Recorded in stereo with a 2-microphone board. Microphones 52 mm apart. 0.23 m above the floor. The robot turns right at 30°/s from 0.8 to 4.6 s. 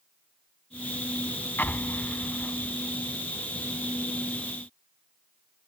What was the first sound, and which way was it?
An explosion, 120° left.